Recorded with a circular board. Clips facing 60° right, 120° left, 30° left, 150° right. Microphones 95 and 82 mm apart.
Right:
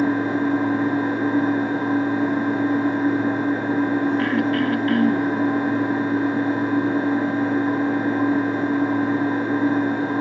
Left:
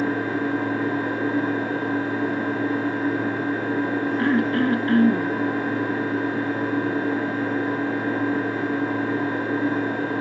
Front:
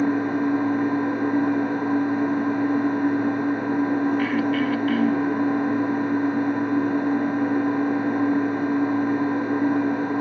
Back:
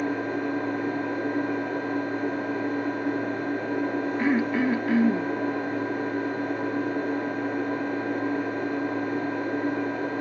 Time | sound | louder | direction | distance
0.0 | an engine running | right 4 dB, front 6 dB | 10° left | 5.5 m
4.2 | throat clearing | even, front 2 dB | 160° left | 0.6 m